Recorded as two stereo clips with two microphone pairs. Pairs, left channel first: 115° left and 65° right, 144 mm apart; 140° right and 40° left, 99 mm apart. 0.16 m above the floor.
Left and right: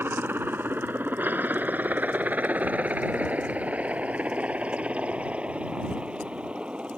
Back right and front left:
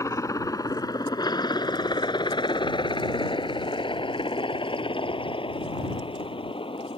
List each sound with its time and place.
0.0 s a helicopter: 130° right; by 7.0 s 150° right